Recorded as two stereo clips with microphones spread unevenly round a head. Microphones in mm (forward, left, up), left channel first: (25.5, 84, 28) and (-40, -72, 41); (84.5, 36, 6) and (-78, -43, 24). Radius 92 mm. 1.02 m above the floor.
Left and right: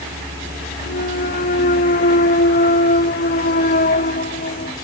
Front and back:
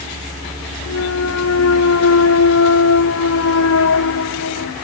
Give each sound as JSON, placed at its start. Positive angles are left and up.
{"t": 0.9, "sound": "a clunk", "azimuth_deg": 20}